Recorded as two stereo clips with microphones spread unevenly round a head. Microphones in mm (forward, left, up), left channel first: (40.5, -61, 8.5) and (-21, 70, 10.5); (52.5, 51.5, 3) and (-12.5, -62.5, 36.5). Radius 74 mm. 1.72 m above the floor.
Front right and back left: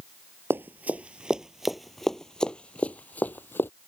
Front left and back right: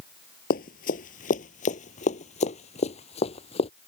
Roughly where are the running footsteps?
Ahead left.